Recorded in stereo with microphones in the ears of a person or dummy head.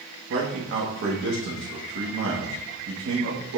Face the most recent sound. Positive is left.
turn(degrees=-60)  # may be behind; listen again after turning